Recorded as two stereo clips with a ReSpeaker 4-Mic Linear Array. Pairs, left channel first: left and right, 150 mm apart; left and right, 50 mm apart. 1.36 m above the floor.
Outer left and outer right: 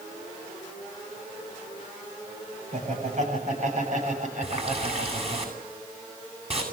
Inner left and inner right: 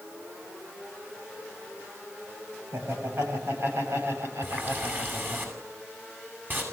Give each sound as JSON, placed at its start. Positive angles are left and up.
{"t": 2.7, "sound": "laughter", "side_deg": -55, "distance_m": 8.5}
{"t": 4.4, "sound": "a running tap", "side_deg": -40, "distance_m": 7.5}